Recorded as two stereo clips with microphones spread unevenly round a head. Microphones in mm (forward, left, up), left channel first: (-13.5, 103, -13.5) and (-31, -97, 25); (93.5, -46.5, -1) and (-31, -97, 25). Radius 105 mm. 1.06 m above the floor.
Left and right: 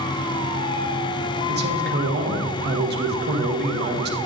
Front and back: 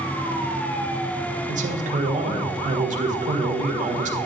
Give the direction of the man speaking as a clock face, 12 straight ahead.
4 o'clock.